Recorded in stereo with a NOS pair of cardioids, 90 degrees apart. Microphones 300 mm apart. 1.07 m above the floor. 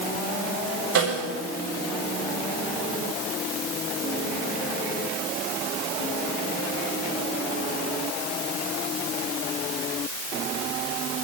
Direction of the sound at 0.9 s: 70° right.